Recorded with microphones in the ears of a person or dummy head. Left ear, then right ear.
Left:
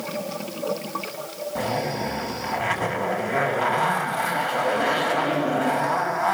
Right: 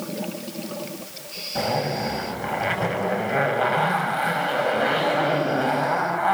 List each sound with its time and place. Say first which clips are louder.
1.6 s a zipper: right 2 dB; centre (ahead or behind), 5 m